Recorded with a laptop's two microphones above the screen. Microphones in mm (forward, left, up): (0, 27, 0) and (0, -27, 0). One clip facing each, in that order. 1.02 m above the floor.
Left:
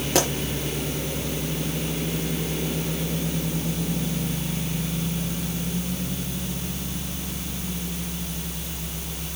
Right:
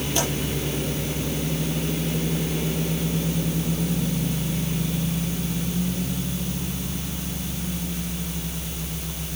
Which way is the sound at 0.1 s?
80° left.